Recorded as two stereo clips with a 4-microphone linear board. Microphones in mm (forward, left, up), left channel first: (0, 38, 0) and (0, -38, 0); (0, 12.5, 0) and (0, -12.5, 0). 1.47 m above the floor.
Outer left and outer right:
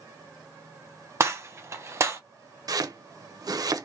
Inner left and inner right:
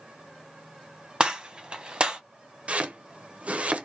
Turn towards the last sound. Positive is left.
turn(degrees=-55)  # may be behind; listen again after turning